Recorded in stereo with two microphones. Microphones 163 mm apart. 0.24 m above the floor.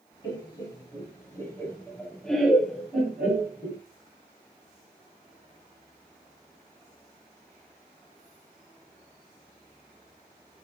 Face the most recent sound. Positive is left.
turn(degrees=-15)  # may be behind; listen again after turning